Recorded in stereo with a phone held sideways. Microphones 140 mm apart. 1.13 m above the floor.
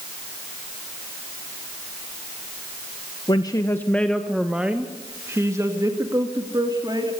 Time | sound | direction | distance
3.3 | a woman speaking | 35° left (ahead or behind) | 1.0 m